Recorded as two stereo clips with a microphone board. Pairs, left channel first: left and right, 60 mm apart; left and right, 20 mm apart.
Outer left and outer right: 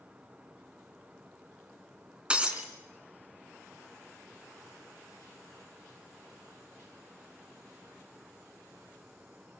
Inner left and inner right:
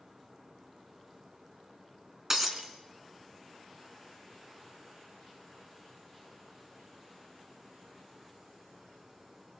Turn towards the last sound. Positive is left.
turn(degrees=-15)  # may be behind; listen again after turning